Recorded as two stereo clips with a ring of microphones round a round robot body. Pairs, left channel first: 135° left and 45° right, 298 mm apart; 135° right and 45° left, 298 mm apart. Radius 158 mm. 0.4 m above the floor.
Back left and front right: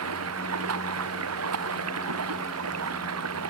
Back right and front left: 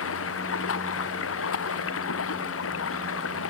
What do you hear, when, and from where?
0.0 s running water: 85° right